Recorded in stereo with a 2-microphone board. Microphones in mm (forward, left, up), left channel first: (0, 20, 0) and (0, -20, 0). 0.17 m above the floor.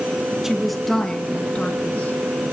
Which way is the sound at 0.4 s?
10° right (ahead or behind).